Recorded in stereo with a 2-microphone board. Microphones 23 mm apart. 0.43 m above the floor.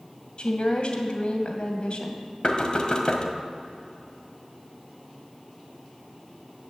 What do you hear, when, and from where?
0.4 s a woman speaking: 55° left (ahead or behind), 2 m
2.4 s knocking: 45° left (ahead or behind), 1.5 m